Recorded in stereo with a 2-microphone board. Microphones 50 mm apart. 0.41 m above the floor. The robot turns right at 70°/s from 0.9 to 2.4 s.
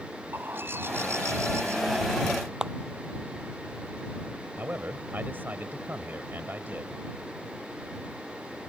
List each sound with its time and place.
0.3 s a bird: 125° right; by 2.0 s 45° right
2.6 s a clap: 15° right (ahead or behind)
4.6 s a man speaking: 40° right (ahead or behind)